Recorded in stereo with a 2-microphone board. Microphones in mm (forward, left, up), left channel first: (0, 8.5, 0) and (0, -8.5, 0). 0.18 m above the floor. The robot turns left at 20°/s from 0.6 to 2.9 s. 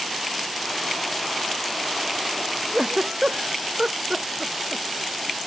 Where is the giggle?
40° right (ahead or behind); by 4.8 s 45° right (ahead or behind).